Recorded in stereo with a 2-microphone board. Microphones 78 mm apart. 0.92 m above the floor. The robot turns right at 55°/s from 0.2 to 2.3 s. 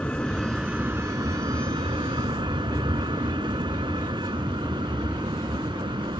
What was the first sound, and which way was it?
A vehicle, 165° left.